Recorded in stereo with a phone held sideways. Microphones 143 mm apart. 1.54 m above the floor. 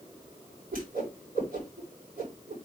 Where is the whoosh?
90° right, 5.5 m.